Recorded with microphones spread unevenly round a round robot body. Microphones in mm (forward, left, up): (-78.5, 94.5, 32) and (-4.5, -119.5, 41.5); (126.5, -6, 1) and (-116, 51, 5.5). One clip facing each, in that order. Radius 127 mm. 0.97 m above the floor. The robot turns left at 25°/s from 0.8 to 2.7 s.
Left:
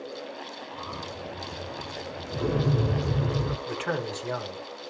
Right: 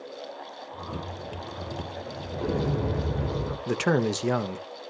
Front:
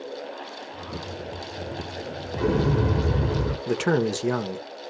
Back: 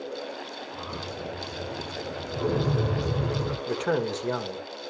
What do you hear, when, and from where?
2.3 s an explosion: 40° left, 1.3 m; by 3.6 s 30° left, 1.3 m
3.7 s a man speaking: 50° right, 1.3 m